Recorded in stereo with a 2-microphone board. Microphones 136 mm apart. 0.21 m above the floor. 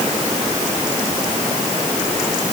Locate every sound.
Only background noise.